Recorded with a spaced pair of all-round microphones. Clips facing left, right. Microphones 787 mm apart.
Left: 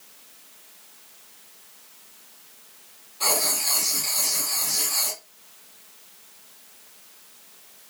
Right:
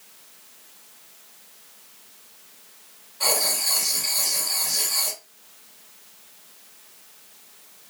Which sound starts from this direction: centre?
Writing, at 3.2 s.